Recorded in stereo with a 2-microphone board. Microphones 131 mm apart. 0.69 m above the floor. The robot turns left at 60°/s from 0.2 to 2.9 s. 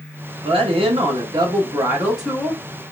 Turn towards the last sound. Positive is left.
turn(degrees=140)